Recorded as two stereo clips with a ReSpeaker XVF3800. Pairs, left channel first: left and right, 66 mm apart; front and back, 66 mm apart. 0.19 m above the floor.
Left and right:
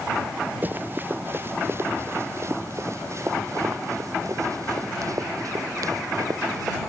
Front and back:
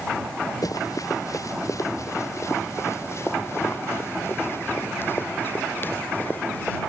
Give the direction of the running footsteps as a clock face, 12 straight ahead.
1 o'clock.